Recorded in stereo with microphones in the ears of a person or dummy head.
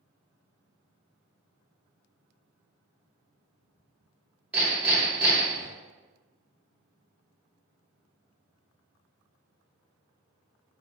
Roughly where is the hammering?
Centre.